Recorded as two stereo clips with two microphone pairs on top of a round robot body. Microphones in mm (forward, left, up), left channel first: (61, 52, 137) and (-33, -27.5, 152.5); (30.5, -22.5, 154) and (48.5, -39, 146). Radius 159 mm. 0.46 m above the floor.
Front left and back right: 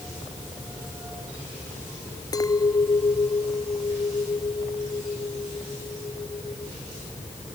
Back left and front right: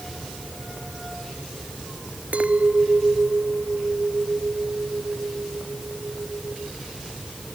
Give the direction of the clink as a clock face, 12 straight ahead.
1 o'clock.